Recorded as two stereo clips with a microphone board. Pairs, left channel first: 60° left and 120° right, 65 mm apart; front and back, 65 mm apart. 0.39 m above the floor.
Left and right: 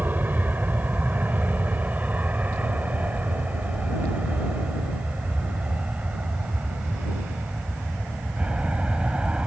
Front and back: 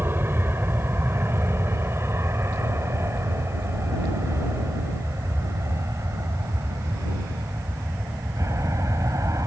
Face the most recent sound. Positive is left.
turn(degrees=170)